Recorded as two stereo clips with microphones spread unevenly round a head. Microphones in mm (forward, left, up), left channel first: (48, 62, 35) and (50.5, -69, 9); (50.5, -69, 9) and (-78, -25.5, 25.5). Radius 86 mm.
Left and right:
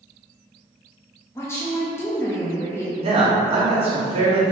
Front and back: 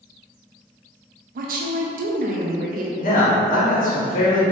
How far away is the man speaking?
About 1.7 m.